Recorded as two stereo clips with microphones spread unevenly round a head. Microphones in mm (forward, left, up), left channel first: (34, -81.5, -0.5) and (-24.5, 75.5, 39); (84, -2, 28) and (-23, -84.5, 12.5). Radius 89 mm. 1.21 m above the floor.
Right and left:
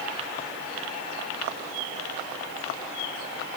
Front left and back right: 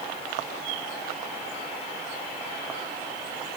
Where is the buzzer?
No buzzer in this recording.